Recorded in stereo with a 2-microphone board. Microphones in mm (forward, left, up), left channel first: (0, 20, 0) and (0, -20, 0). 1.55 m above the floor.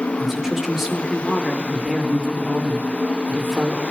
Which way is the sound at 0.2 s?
10° right (ahead or behind).